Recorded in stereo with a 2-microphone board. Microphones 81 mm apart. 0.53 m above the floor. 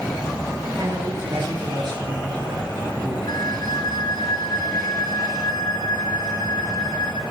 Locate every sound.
0.8 s a man speaking: 70° right (ahead or behind), 10 m
3.3 s a flute: 65° left (ahead or behind), 2.5 m